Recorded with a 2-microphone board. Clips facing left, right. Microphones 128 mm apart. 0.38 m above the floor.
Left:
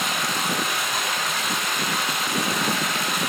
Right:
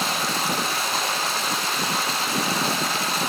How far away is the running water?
About 7.5 m.